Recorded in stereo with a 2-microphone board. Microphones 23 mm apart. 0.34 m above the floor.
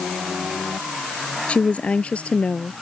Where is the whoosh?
No whoosh in this recording.